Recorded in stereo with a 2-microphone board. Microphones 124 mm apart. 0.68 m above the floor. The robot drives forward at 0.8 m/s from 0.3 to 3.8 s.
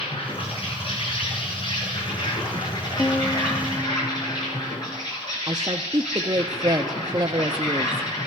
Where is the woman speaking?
30° right (ahead or behind), 0.5 m.